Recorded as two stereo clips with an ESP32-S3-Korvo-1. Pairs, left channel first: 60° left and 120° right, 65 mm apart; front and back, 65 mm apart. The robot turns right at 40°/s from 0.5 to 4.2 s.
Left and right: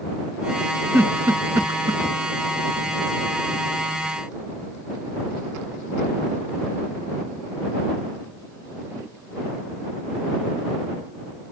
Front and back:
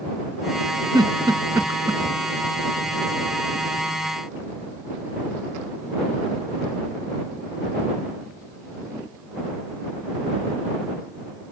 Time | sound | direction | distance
0.9 | a giggle | straight behind | ?